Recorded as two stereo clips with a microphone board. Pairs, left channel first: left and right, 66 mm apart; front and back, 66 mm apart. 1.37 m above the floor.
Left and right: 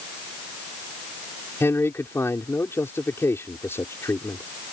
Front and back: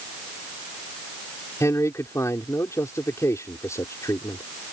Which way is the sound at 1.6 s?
40° left.